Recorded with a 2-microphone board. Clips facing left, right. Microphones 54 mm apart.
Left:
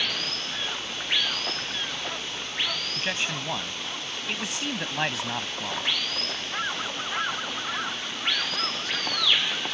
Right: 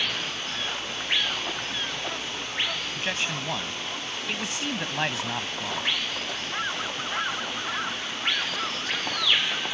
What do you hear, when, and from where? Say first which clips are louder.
0.0 s running water: right 1 dB; 15° right (ahead or behind)
3.0 s a man speaking: even; 5° left (ahead or behind)